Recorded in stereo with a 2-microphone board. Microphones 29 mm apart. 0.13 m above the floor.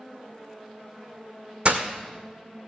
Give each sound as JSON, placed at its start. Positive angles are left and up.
{"t": 1.6, "sound": "breaking glass", "side_deg": -45, "distance_m": 1.6}